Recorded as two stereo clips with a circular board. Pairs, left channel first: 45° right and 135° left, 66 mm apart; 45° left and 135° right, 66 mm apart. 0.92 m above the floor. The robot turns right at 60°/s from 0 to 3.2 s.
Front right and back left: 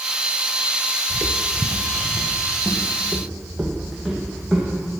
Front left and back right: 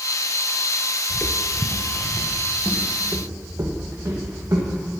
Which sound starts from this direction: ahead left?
Footsteps, at 1.1 s.